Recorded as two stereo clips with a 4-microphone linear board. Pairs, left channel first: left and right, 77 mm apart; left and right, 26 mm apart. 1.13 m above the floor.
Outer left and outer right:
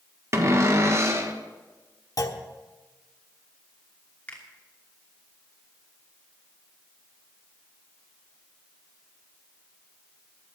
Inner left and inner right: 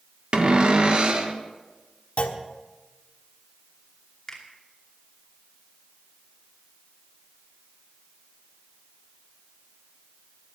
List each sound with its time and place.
0.3 s a cupboard door: 40° right (ahead or behind), 1.4 m
2.2 s a clunk: 50° left (ahead or behind), 1.2 m
4.3 s a finger snap: 20° left (ahead or behind), 2.5 m